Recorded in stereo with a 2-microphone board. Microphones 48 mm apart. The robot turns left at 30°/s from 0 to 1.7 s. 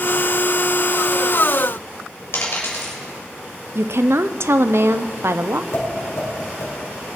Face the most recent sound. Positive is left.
turn(degrees=70)  # may be behind; listen again after turning